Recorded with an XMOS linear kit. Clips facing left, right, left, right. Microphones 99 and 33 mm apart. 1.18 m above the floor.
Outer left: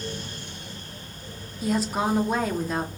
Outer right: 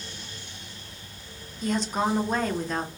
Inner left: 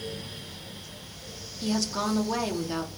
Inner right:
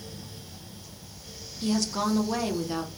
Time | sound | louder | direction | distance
1.6 | a woman speaking | outer left 1 dB, inner right 1 dB | 5° left (ahead or behind) | 0.6 m